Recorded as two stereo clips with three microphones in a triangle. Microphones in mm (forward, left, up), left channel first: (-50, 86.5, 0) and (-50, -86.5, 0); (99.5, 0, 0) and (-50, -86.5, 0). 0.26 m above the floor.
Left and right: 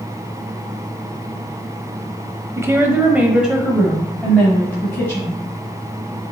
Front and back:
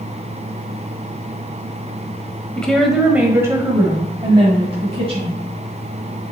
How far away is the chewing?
I don't hear chewing.